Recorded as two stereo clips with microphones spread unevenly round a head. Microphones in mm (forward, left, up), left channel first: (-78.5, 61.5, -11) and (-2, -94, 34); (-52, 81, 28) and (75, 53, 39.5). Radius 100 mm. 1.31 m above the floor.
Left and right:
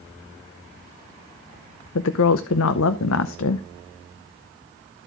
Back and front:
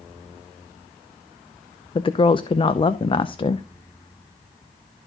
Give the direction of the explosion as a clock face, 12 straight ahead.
I don't hear an explosion.